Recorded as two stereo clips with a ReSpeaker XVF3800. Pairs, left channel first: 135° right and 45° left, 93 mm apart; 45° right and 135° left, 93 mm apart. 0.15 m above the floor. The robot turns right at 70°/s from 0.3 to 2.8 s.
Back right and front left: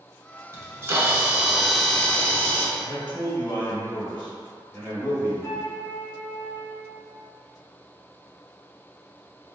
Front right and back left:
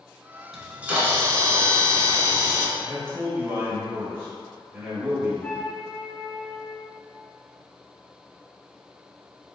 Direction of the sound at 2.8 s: 165° left.